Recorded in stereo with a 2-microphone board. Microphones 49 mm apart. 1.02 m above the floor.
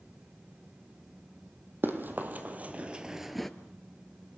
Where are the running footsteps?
45° right (ahead or behind), 2.5 m; by 3.5 s 5° left (ahead or behind), 1.1 m.